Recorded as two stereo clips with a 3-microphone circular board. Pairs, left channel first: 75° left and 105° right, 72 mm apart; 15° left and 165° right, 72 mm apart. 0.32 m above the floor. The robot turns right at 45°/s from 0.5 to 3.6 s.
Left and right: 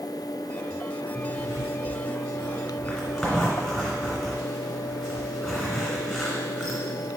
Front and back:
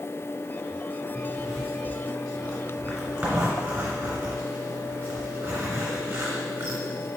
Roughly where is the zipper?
Ahead left.